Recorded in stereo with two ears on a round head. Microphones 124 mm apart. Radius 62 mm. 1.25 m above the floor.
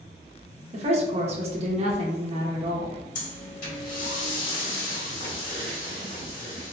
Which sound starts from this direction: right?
A woman speaking, at 0.7 s.